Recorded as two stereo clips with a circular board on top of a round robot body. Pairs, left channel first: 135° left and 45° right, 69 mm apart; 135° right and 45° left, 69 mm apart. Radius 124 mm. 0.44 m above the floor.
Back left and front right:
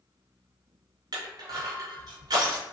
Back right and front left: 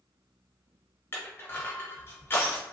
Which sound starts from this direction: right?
Crushing, at 1.1 s.